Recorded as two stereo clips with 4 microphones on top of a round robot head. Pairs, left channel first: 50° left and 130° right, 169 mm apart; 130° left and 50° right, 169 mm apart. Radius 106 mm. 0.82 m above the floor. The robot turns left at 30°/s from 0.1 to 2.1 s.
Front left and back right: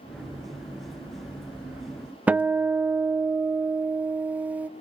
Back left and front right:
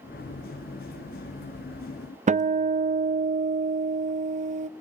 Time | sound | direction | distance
2.3 | a guitar | 55° right | 0.7 m